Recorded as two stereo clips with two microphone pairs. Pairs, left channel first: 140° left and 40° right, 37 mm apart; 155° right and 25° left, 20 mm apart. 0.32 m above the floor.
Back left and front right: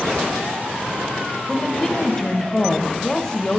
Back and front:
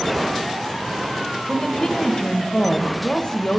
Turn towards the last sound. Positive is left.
turn(degrees=-160)